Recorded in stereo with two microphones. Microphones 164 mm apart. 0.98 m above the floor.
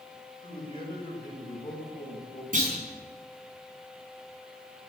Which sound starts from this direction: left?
A man speaking, at 0.4 s.